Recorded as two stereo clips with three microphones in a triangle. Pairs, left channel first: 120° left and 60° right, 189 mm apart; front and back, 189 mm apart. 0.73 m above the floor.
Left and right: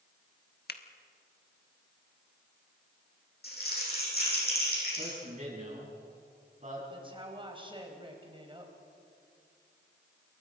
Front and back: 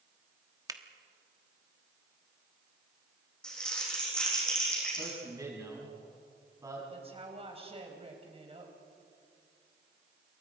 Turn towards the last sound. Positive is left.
turn(degrees=-125)